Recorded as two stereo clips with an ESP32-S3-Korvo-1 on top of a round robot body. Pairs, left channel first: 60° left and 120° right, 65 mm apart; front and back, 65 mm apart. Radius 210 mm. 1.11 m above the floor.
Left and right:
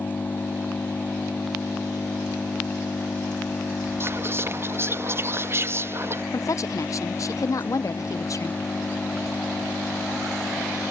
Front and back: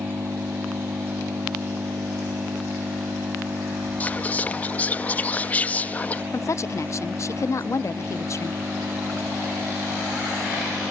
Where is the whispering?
65° right.